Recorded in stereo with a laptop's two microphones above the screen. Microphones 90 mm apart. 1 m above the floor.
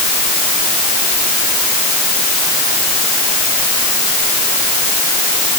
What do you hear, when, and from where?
Only background noise.